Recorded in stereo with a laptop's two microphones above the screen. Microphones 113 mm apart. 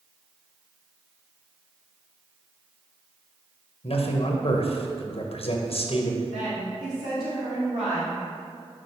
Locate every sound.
3.8 s a man speaking: 60° left (ahead or behind), 1.0 m
6.3 s a woman speaking: 75° right (ahead or behind), 2.5 m